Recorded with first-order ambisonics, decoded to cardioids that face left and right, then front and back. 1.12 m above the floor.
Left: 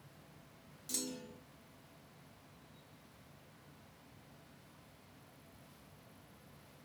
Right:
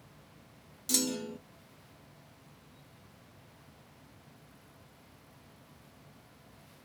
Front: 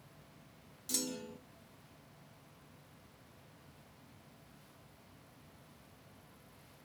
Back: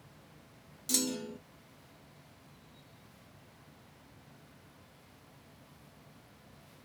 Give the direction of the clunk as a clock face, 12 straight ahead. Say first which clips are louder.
Right 11 dB, back 6 dB; 4 o'clock.